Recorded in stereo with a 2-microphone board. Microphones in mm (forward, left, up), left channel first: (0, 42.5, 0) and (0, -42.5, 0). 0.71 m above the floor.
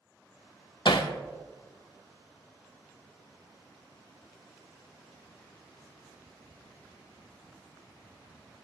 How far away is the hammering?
About 0.8 m.